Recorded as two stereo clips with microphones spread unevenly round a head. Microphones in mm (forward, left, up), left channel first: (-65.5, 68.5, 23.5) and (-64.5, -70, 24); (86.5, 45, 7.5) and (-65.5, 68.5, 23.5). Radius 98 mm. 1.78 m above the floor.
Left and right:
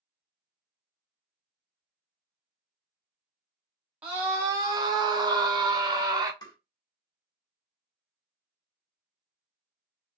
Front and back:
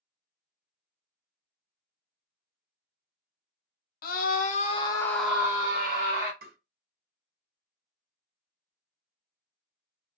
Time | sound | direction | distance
4.0 | a scream | 10° right | 0.8 m
6.4 | tapping | 155° left | 1.8 m